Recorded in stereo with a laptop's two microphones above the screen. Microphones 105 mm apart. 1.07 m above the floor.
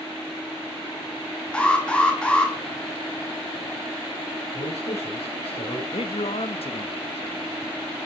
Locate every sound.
1.5 s an alarm: 10° left (ahead or behind), 2 m
4.5 s a man speaking: 80° left, 4.5 m
5.9 s a man speaking: 70° left (ahead or behind), 1.3 m